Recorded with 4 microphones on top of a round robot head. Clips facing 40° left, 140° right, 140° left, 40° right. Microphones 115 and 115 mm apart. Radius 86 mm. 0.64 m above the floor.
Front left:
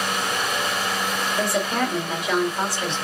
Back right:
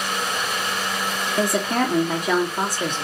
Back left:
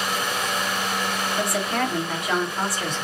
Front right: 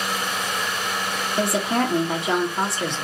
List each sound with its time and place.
1.4 s a woman speaking: 105° right, 1.1 m